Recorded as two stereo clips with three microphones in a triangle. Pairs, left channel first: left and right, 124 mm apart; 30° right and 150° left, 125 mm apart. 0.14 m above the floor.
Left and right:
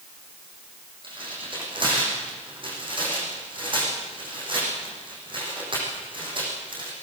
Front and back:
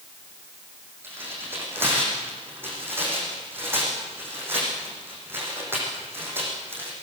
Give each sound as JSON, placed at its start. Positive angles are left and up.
{"t": 1.0, "sound": "tearing paper", "azimuth_deg": -135, "distance_m": 7.5}